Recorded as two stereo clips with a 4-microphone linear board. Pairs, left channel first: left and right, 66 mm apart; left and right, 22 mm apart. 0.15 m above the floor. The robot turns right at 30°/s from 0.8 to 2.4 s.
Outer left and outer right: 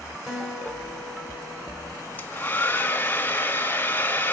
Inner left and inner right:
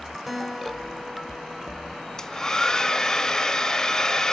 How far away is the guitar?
About 1.2 m.